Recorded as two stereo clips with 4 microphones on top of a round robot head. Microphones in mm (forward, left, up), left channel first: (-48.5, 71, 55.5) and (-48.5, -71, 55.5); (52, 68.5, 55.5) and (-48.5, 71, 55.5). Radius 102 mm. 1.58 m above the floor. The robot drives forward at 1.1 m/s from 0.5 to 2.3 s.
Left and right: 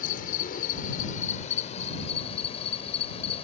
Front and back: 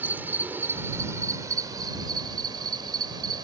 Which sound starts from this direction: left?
An insect, at 0.0 s.